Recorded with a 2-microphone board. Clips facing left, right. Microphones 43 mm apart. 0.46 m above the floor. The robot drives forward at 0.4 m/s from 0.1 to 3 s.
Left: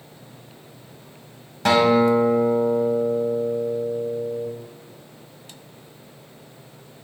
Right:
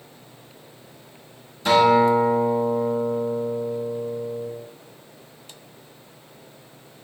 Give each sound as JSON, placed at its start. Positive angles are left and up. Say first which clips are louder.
{"t": 1.6, "sound": "a guitar", "louder": "right 1 dB", "side_deg": 70, "distance_m": 1.6}